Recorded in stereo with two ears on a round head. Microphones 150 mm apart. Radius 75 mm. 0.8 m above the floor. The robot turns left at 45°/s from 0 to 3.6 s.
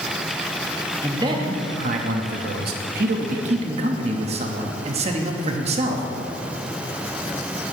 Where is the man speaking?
20° right, 0.8 m; by 6.1 s 135° right, 0.8 m.